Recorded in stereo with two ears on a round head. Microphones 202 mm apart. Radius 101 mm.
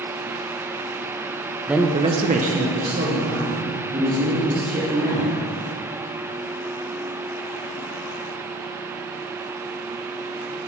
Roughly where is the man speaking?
Centre.